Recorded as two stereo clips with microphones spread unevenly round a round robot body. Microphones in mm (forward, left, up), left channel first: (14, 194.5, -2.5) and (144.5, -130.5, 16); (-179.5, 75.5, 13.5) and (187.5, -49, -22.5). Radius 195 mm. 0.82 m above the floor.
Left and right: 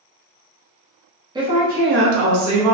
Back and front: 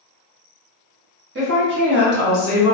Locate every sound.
1.4 s a woman speaking: 5° left, 0.8 m; by 2.7 s 80° right, 0.9 m